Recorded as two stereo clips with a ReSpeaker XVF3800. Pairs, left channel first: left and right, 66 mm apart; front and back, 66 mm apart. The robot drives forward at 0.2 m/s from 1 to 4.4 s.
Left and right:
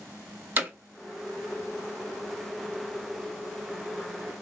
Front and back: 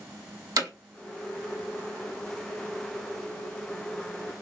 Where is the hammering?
150° right, 1.0 m.